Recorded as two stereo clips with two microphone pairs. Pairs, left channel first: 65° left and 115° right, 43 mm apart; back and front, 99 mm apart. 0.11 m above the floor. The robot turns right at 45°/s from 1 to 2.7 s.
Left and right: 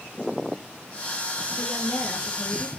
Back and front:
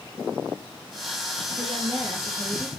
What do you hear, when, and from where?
1.6 s a woman speaking: 25° left, 3.5 m; by 2.7 s 80° left, 3.5 m